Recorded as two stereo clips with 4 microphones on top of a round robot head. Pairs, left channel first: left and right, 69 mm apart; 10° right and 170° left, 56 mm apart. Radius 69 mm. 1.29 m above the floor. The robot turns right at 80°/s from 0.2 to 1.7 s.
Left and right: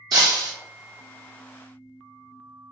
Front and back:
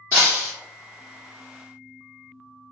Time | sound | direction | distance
0.1 | breaking glass | 75° right | 1.5 m